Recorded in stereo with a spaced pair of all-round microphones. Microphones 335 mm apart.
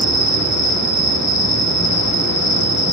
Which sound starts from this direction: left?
An insect, at 0.0 s.